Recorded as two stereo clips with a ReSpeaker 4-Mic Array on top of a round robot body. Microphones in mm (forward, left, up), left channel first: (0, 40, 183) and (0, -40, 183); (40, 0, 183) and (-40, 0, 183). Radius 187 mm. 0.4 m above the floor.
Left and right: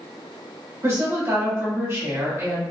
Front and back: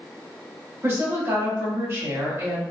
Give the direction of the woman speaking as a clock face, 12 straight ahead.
4 o'clock.